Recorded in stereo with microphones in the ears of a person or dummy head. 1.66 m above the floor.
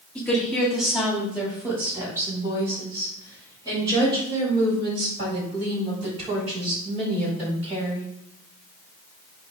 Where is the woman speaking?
10° left (ahead or behind), 2.5 m; by 8.1 s 35° right (ahead or behind), 8.5 m.